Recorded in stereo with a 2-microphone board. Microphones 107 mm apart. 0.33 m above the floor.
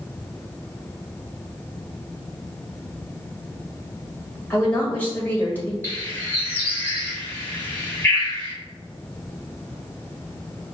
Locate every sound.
4.5 s a woman speaking: 15° left (ahead or behind), 1.6 m
5.8 s a bird: 20° left (ahead or behind), 1.5 m